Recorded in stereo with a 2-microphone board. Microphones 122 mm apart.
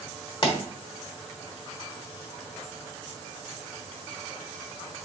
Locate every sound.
0.4 s a pop: 45° left (ahead or behind), 1.1 m